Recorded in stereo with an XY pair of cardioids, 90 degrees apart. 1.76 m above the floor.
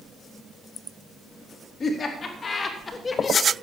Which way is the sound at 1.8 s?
55° left.